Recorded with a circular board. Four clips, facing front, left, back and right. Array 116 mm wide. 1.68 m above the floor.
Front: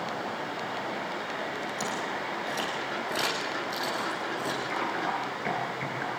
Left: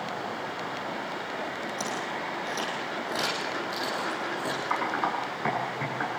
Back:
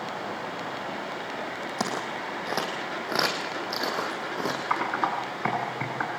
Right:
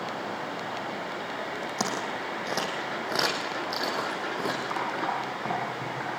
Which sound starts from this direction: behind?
Typing on a keyboard, at 4.7 s.